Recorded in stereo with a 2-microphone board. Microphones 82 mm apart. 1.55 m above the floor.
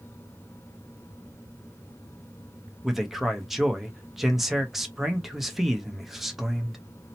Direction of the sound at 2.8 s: 5° right (ahead or behind).